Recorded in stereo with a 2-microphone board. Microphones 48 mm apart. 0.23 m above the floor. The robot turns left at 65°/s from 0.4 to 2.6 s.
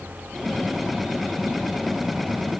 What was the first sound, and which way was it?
Only background noise.